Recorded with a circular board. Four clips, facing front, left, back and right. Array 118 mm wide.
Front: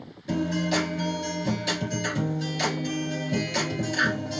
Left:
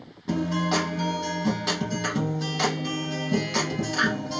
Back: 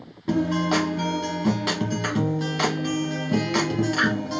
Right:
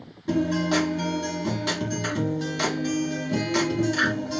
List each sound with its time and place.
0.3 s a guitar: 175° left, 1.3 m